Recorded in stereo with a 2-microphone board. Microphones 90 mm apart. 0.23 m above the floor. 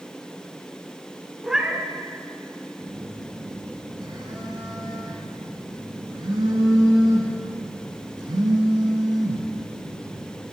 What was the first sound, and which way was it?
A cat meowing, 5° right (ahead or behind).